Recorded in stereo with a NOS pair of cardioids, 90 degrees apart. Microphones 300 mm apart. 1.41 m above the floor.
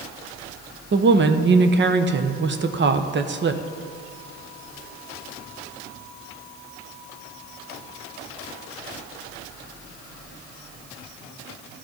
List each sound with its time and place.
0.9 s a woman speaking: 40° right, 0.9 m